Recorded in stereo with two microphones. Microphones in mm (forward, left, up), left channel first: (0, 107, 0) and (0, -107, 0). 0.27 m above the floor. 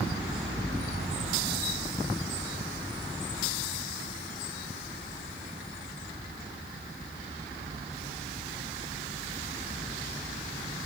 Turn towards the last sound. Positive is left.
No sound to turn to.